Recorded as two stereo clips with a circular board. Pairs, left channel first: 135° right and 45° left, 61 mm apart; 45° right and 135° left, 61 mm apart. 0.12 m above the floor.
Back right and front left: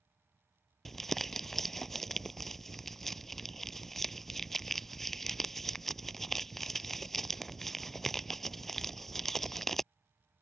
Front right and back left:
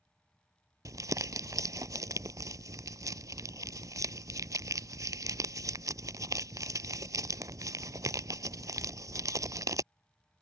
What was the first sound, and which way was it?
Crumpling, 140° left.